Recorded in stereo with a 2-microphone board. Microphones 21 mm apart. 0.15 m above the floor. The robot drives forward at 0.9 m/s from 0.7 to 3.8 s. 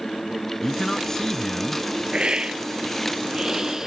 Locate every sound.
0.6 s a man speaking: 20° left (ahead or behind); by 2.0 s 15° left (ahead or behind)
2.1 s a hiss: 50° right (ahead or behind); by 3.9 s 25° right (ahead or behind)